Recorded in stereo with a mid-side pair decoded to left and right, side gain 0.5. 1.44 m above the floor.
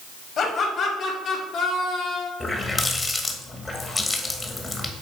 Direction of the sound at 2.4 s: 25° left.